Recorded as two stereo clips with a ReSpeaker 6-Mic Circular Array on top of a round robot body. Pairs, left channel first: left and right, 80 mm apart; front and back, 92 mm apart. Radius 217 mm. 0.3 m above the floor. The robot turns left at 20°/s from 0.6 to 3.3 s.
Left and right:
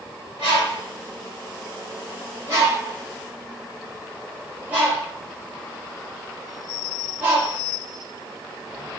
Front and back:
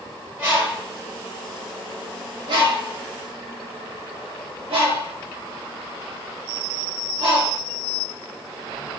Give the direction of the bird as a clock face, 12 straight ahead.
4 o'clock.